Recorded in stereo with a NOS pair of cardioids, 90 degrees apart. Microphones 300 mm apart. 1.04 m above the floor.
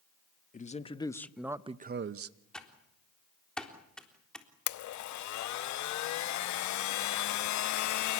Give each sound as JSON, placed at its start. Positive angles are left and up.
{"t": 0.5, "sound": "a man speaking", "azimuth_deg": 25, "distance_m": 1.7}
{"t": 2.5, "sound": "typing on a keyboard", "azimuth_deg": 5, "distance_m": 3.5}
{"t": 4.7, "sound": "a blender", "azimuth_deg": 70, "distance_m": 0.9}